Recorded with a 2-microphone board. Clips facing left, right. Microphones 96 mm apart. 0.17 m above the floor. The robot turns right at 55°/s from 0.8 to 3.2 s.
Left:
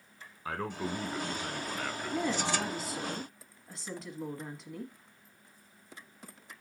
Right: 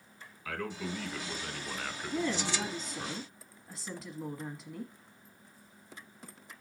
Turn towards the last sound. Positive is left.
turn(degrees=0)  # may be behind; listen again after turning